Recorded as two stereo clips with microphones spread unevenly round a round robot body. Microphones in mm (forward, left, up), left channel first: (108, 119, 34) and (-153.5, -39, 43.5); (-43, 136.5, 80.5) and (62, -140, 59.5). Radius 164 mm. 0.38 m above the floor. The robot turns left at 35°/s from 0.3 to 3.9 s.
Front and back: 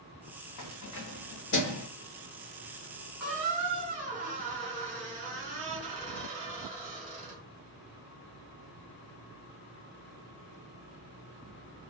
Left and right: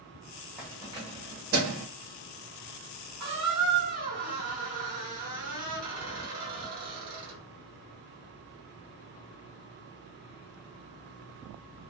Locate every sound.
0.6 s keys jangling: 15° left, 1.1 m; by 1.9 s 30° right, 1.1 m
3.2 s a squeak: 60° right, 1.8 m; by 7.4 s 85° right, 1.8 m